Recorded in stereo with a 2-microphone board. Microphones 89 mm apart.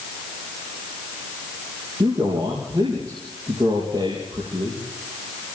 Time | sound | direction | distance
2.0 | a man speaking | 55° right (ahead or behind) | 5.5 m